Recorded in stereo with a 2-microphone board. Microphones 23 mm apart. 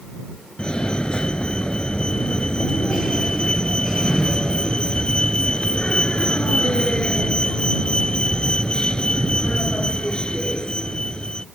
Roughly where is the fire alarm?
Left.